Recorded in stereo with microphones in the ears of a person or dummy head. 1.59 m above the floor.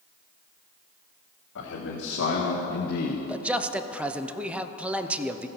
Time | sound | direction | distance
1.6 | a man speaking | 75° left (ahead or behind) | 2 m
3.3 | a man speaking | 10° right (ahead or behind) | 0.6 m